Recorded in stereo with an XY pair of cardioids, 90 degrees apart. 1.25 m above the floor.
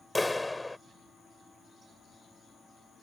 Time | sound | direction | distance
0.1 | a clap | 15° left | ?